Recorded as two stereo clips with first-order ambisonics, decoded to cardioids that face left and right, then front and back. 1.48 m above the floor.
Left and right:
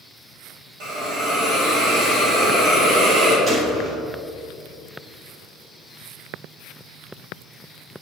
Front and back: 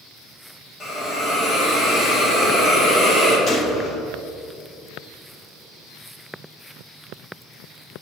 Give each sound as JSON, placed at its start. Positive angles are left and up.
{"t": 0.8, "sound": "a hiss", "azimuth_deg": -75, "distance_m": 2.0}
{"t": 3.5, "sound": "a gunshot", "azimuth_deg": -40, "distance_m": 0.9}